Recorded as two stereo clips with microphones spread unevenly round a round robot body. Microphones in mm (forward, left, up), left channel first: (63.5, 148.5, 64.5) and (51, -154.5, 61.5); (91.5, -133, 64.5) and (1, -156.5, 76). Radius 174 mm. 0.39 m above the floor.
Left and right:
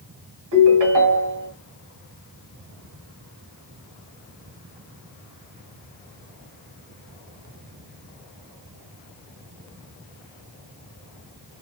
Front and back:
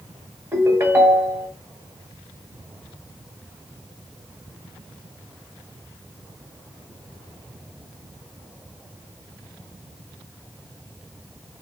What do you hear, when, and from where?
0.5 s a ringtone: 105° right, 1.7 m